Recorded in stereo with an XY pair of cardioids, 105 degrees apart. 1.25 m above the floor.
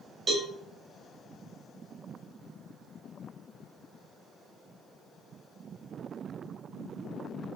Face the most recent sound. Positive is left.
turn(degrees=-40)